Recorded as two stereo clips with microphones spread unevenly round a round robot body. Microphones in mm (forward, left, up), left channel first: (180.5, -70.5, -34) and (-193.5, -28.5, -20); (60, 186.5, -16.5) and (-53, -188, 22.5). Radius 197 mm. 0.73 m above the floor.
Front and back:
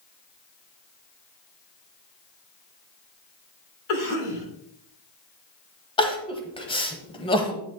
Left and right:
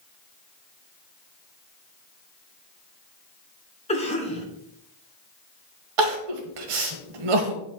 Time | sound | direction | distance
3.9 | a cough | straight ahead | 2 m
6.0 | crying | 85° right | 1.2 m